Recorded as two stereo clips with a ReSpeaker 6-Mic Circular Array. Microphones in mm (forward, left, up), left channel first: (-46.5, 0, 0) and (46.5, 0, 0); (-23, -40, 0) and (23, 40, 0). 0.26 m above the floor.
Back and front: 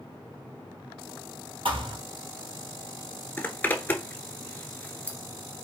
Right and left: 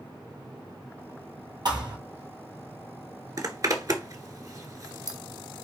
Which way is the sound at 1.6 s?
20° left.